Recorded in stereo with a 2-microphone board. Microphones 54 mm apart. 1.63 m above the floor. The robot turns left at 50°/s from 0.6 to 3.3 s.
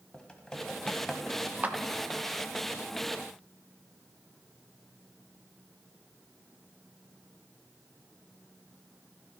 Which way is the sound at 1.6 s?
30° right (ahead or behind).